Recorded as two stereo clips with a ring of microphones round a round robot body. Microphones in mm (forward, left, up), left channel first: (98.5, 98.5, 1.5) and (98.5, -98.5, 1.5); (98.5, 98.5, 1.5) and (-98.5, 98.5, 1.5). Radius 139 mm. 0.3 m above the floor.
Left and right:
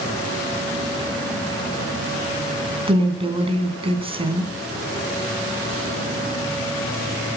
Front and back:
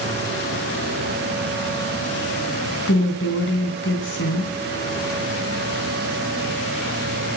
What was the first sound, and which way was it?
A woman speaking, 30° right.